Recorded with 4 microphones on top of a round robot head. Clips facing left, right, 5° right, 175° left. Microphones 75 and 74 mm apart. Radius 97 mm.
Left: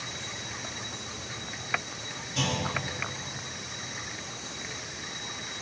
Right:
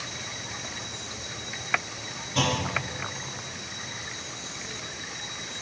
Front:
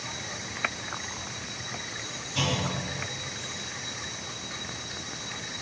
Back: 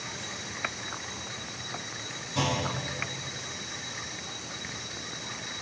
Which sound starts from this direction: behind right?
A clunk, at 2.4 s.